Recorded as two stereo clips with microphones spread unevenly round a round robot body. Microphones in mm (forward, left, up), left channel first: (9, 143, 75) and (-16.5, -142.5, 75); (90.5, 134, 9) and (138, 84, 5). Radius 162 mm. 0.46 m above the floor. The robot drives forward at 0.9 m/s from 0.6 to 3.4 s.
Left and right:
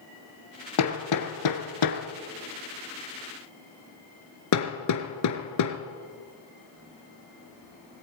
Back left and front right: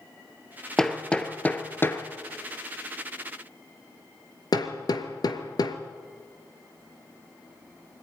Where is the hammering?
50° left, 2.5 m; by 5.8 s 115° left, 2 m.